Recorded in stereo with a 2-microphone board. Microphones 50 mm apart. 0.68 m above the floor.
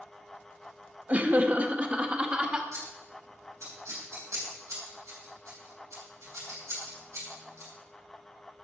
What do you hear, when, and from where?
1.1 s laughter: 35° right (ahead or behind), 0.9 m; by 2.6 s 20° right (ahead or behind), 1.6 m
2.7 s scissors: 80° right, 5 m